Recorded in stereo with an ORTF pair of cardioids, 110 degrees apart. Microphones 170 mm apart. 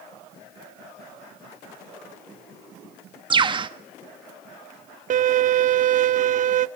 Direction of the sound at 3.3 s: 30° right.